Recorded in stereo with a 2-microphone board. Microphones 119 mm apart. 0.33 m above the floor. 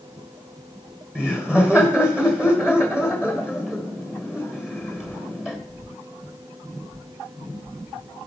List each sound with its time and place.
1.1 s laughter: 10° right (ahead or behind), 1.0 m